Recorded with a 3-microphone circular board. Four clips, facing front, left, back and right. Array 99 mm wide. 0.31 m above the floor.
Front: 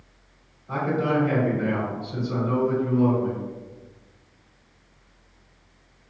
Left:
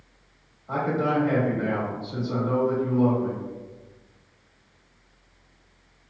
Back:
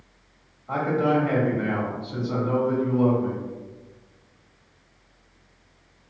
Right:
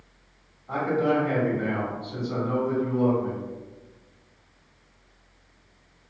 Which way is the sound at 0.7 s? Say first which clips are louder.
Right 1 dB, back 2 dB; 170° left.